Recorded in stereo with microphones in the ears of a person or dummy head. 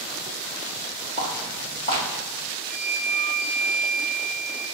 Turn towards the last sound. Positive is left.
turn(degrees=40)  # may be behind; listen again after turning